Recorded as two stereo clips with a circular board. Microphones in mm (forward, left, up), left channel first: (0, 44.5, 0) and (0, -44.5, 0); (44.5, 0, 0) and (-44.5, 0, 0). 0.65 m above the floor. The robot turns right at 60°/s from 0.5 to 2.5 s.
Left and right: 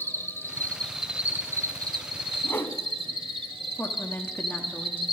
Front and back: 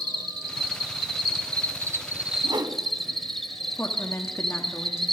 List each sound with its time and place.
0.0 s an insect: 150° left, 1.3 m; by 5.2 s 90° right, 1.3 m
2.4 s a whoosh: 150° left, 1.4 m
3.8 s a woman speaking: 35° left, 1.4 m